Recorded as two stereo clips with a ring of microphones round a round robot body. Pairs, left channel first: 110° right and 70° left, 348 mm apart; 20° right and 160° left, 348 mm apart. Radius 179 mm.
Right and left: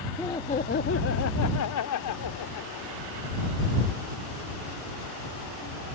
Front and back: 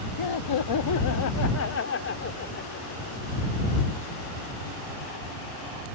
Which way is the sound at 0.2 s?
30° right.